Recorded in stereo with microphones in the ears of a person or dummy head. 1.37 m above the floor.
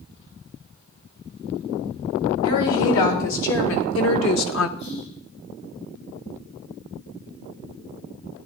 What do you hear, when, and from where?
2.4 s a woman speaking: 75° left (ahead or behind), 3 m; by 4.7 s 70° left (ahead or behind), 0.9 m
4.8 s whispering: 70° left (ahead or behind), 5 m